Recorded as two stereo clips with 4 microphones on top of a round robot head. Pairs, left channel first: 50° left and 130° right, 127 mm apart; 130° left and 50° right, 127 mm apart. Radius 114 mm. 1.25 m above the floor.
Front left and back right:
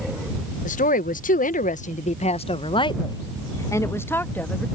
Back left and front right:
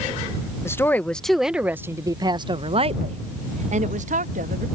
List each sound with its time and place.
0.7 s a woman speaking: 65° left; by 4.7 s 30° right